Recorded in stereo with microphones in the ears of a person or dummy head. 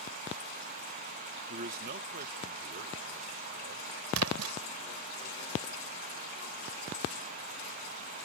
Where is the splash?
90° right.